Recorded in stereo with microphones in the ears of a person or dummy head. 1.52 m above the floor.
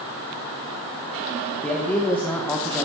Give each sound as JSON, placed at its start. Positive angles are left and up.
{"t": 1.6, "sound": "a man speaking", "side_deg": 10, "distance_m": 1.3}